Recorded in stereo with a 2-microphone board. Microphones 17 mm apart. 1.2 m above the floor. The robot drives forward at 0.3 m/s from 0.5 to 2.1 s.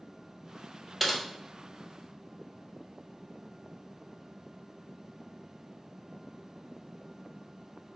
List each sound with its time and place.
1.0 s typing on a keyboard: centre (ahead or behind), 0.7 m